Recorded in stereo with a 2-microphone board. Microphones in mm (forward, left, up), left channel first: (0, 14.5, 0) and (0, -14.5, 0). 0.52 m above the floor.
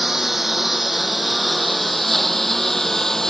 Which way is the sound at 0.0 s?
10° right (ahead or behind).